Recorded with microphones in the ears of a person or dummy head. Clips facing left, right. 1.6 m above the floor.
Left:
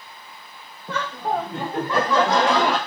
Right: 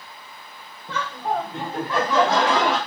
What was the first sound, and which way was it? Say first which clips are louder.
Laughter: left 1 dB; 45° left (ahead or behind).